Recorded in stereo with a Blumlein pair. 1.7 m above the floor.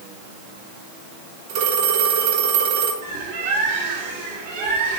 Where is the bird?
60° right, 1.8 m.